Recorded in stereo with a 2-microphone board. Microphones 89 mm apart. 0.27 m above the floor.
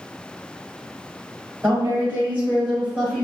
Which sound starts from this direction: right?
A woman speaking, at 1.6 s.